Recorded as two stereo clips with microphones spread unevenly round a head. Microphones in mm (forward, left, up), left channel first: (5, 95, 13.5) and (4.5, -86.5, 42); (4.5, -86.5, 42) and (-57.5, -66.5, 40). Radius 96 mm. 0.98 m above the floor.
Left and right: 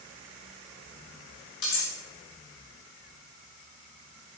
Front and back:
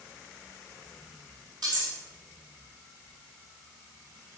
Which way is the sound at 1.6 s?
65° left.